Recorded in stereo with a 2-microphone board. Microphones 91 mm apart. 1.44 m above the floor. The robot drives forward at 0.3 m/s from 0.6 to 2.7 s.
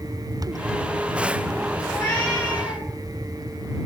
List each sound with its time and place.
1.9 s a cat meowing: 30° left (ahead or behind), 2 m